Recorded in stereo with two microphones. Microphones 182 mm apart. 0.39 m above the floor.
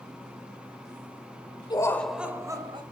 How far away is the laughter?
About 1.1 m.